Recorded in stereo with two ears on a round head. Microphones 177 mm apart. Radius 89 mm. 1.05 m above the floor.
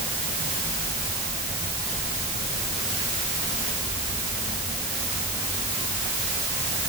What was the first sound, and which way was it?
Only background noise.